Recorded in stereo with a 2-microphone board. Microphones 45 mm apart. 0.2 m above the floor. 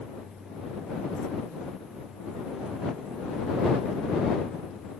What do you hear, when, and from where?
Only background noise.